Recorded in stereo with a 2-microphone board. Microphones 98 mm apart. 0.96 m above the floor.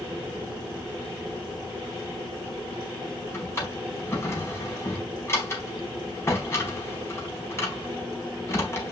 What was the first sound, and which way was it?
A drawer, 25° left (ahead or behind).